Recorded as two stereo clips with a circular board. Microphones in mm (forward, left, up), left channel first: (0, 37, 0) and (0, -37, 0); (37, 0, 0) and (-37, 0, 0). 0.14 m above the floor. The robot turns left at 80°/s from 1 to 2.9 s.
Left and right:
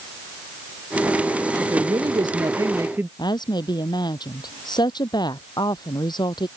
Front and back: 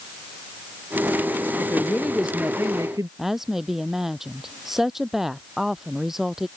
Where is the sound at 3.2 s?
95° left.